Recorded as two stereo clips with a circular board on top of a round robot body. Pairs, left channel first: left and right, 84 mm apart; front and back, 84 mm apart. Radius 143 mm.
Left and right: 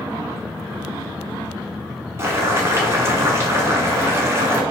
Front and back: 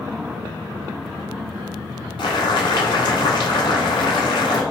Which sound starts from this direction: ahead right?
Boiling, at 2.2 s.